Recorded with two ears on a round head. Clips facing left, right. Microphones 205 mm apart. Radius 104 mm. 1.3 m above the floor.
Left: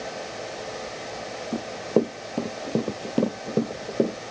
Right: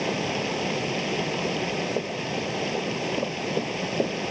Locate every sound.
0.0 s running water: 85° right
1.5 s running footsteps: 55° left (ahead or behind); by 4.2 s 20° left (ahead or behind)